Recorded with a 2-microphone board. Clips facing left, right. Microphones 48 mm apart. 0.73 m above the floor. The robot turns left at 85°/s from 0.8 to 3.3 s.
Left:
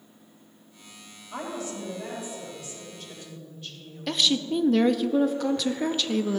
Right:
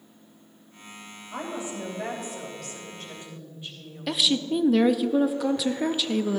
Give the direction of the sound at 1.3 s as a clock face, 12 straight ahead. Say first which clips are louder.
Even; 12 o'clock.